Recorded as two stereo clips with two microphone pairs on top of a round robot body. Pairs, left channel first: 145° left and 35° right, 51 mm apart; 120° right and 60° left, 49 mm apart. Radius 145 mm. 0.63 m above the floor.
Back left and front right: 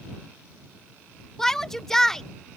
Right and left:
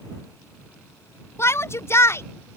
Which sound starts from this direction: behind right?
A shout, at 1.4 s.